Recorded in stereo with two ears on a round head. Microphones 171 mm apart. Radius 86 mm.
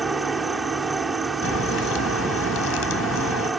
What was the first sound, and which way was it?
An insect, centre (ahead or behind).